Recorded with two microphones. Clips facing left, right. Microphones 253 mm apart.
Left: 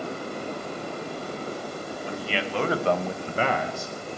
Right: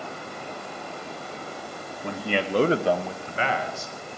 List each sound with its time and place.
2.0 s a man speaking: 65° right (ahead or behind), 1.3 m; by 4.2 s 70° left (ahead or behind), 1.7 m